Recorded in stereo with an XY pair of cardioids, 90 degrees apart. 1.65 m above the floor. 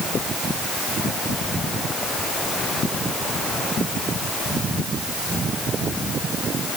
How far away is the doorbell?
No doorbell in this recording.